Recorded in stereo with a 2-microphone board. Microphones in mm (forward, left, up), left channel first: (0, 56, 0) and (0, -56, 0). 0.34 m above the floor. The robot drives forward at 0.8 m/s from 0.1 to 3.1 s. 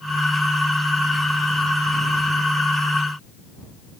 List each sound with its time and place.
Only background noise.